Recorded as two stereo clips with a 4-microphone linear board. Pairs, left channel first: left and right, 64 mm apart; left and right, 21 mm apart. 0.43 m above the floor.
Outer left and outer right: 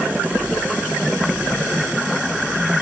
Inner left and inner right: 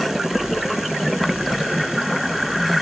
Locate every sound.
Only background noise.